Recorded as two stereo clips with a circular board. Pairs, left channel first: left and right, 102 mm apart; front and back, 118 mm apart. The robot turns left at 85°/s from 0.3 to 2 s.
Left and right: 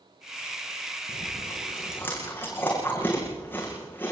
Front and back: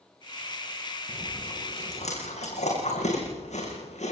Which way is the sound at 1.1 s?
95° left.